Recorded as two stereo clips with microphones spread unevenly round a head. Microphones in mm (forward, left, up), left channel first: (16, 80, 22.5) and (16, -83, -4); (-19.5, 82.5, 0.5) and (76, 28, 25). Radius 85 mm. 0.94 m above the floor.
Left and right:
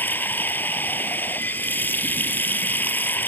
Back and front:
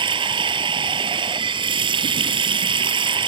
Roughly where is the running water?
Ahead.